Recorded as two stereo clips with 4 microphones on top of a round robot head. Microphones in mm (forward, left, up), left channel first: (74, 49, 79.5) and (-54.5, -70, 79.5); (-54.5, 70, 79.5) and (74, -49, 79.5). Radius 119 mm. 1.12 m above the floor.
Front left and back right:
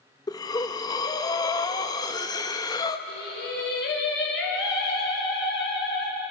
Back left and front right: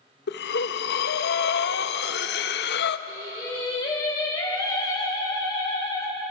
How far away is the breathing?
About 0.6 m.